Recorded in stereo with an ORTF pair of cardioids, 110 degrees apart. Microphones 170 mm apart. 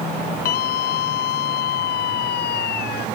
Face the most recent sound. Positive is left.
turn(degrees=70)